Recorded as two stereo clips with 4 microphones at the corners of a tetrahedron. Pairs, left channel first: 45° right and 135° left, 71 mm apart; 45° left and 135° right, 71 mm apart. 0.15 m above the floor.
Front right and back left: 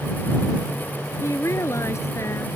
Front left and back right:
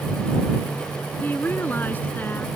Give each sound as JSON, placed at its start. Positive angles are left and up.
{"t": 1.2, "sound": "a woman speaking", "azimuth_deg": -10}